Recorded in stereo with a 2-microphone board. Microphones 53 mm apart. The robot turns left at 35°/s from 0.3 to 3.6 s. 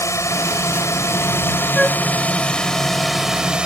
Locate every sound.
0.0 s a drone: 95° left; by 3.7 s 20° right
1.8 s a flute: 10° left (ahead or behind); by 2.0 s centre (ahead or behind)